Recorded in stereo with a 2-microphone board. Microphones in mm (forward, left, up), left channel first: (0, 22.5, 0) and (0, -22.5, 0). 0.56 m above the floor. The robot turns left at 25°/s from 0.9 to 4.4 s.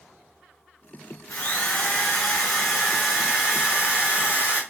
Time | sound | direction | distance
1.3 | a drill | 40° left | 2.0 m